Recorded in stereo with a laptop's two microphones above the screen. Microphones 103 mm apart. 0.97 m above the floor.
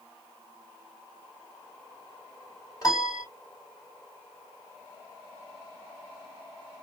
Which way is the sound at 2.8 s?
35° left (ahead or behind).